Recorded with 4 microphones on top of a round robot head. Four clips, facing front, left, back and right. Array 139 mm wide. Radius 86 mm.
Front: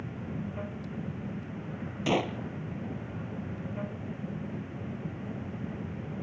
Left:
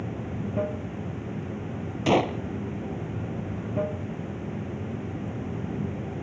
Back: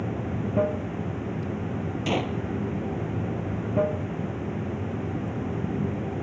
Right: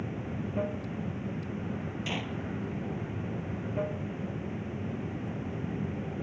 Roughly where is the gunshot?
Left.